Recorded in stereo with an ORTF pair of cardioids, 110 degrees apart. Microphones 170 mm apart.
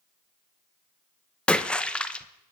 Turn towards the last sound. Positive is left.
turn(degrees=5)